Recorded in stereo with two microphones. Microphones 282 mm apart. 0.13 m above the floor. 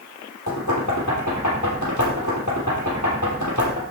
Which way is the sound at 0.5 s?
70° left (ahead or behind).